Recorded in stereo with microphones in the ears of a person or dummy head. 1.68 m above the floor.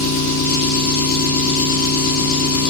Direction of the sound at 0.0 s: 50° left (ahead or behind).